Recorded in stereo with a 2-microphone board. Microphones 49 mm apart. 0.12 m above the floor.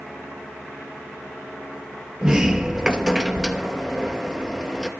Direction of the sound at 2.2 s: 15° right (ahead or behind).